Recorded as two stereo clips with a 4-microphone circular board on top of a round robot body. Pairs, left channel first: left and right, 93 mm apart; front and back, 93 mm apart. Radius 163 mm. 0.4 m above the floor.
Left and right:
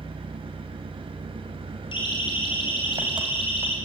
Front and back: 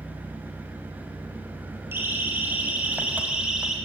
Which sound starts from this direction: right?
An engine running, at 0.0 s.